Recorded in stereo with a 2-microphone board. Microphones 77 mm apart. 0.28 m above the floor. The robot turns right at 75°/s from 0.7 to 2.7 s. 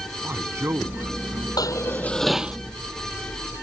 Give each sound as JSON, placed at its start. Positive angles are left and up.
{"t": 0.2, "sound": "a man speaking", "azimuth_deg": -135}
{"t": 1.6, "sound": "dishes clattering", "azimuth_deg": 125}